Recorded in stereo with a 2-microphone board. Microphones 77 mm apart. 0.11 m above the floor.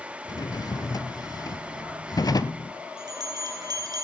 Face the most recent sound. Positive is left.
turn(degrees=-55)  # may be behind; listen again after turning